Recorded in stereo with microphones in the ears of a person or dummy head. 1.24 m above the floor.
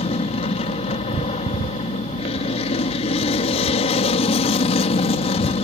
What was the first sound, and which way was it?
An aircraft, 35° left (ahead or behind).